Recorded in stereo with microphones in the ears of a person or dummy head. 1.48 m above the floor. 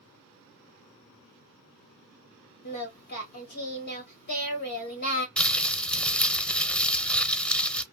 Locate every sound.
2.6 s singing: 55° left (ahead or behind), 1.2 m
5.4 s crumpling: 10° left (ahead or behind), 0.6 m